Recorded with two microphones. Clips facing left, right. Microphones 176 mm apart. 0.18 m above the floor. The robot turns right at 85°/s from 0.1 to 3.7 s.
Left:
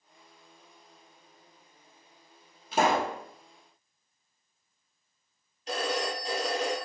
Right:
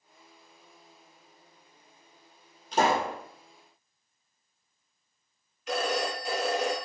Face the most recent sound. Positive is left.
turn(degrees=35)  # may be behind; listen again after turning